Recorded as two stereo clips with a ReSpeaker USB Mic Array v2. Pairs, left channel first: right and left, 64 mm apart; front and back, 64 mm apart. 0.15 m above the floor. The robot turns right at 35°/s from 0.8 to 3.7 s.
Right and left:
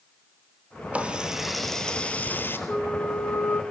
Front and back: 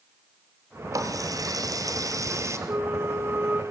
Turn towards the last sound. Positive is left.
turn(degrees=-130)